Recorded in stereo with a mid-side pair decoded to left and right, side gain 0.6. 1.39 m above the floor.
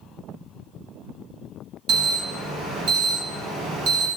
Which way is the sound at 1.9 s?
65° right.